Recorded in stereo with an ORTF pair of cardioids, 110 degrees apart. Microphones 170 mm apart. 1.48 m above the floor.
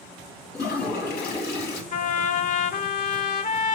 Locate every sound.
0.5 s a toilet flushing: 70° left, 2.5 m
1.9 s a trumpet: 55° left, 1.2 m